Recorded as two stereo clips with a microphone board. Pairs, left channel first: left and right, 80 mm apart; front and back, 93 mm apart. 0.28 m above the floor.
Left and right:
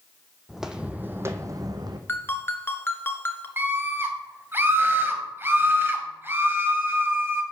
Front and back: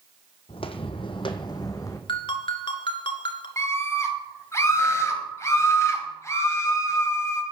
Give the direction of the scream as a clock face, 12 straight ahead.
1 o'clock.